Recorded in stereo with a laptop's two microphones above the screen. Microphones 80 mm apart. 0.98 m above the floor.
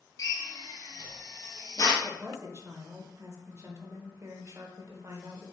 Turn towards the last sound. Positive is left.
turn(degrees=-35)  # may be behind; listen again after turning